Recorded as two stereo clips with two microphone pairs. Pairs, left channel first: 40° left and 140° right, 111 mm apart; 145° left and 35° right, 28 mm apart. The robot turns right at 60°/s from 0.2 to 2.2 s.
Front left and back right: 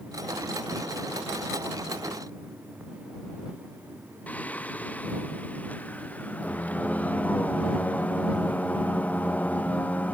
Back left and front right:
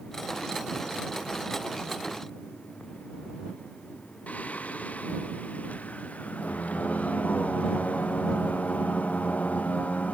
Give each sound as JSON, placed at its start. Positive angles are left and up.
{"t": 4.3, "sound": "singing", "azimuth_deg": 120}